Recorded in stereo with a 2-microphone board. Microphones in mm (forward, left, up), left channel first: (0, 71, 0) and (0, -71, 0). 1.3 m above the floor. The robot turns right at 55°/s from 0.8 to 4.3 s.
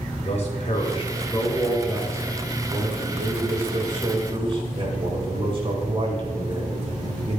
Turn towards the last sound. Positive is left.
turn(degrees=-40)